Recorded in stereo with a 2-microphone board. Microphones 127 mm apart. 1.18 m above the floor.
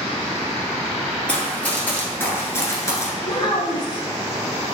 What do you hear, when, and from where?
1.3 s running footsteps: 10° left (ahead or behind), 1.8 m; by 3.1 s 25° left (ahead or behind), 1.3 m
3.2 s a child speaking: 35° left (ahead or behind), 1.1 m